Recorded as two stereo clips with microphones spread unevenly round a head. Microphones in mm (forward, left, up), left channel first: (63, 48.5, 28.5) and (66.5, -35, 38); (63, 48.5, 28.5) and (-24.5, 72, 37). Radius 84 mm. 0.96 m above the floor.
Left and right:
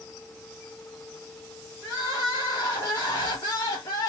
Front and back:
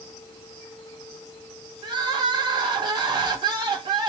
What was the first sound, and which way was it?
Crying, 140° left.